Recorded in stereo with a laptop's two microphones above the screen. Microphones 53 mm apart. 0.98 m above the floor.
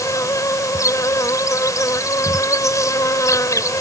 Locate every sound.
0.0 s an insect: 80° left